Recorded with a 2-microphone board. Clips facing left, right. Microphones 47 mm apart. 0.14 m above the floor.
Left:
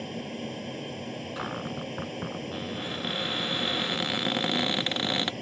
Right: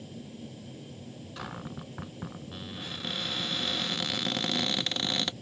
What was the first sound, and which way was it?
An aircraft, 60° left (ahead or behind).